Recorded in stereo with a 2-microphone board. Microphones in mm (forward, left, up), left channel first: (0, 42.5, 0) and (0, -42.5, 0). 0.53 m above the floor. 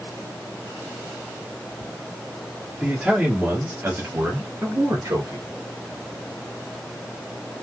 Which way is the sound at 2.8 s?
5° right (ahead or behind).